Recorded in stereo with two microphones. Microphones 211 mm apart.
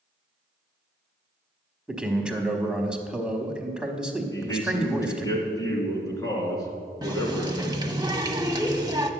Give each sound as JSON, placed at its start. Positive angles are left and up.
{"t": 1.9, "sound": "a man speaking", "side_deg": -5, "distance_m": 1.0}
{"t": 4.3, "sound": "a man speaking", "side_deg": 20, "distance_m": 2.0}
{"t": 7.0, "sound": "a running tap", "side_deg": -20, "distance_m": 0.7}